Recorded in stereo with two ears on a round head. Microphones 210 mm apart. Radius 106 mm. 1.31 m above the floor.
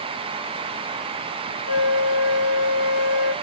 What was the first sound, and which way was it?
A flute, 30° left (ahead or behind).